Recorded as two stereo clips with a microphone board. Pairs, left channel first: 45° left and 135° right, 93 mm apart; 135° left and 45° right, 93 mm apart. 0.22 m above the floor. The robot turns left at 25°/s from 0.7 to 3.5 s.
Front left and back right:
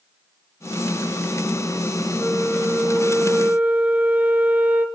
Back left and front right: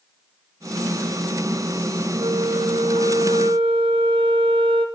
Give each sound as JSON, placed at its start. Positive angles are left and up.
{"t": 2.2, "sound": "a flute", "azimuth_deg": -30, "distance_m": 0.8}